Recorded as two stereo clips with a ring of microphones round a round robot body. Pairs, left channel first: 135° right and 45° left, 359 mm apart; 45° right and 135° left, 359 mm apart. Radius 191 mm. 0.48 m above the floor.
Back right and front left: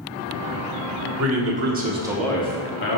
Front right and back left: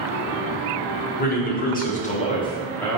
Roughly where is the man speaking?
Ahead.